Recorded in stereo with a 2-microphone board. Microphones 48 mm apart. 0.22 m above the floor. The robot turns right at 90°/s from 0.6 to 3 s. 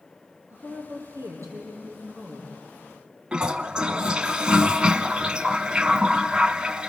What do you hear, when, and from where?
0.5 s a woman speaking: 145° right, 6.5 m; by 2.5 s 25° left, 6.5 m
3.3 s a toilet flushing: 20° right (ahead or behind), 0.8 m